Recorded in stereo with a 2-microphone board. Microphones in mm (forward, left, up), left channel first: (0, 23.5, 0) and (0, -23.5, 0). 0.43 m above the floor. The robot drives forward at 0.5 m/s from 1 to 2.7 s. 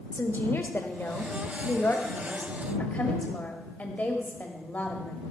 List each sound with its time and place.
0.1 s a woman speaking: 50° left (ahead or behind), 1.1 m; by 5.3 s 35° left (ahead or behind), 1.5 m